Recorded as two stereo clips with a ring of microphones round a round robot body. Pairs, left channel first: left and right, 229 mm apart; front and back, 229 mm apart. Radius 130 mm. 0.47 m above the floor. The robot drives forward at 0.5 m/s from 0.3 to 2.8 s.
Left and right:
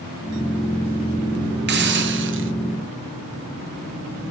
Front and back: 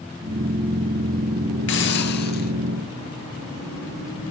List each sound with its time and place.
1.7 s a hiss: 45° right, 2 m; by 2.5 s 55° right, 1.8 m